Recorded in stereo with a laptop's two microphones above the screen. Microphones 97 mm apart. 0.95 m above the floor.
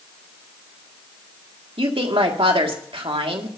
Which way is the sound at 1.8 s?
70° right (ahead or behind).